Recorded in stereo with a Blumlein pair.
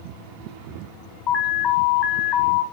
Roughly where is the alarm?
Ahead left.